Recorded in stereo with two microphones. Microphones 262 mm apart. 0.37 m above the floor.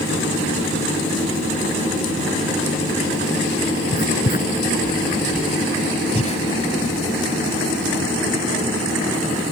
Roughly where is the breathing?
Left.